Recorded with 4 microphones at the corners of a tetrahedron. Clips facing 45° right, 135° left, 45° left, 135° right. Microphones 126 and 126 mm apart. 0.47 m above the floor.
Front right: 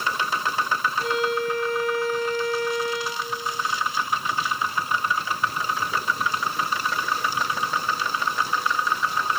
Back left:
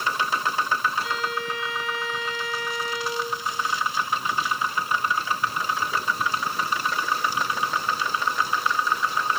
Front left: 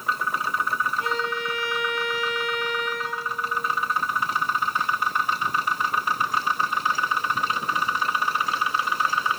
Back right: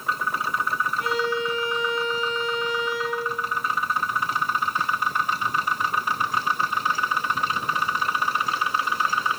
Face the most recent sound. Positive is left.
turn(degrees=-15)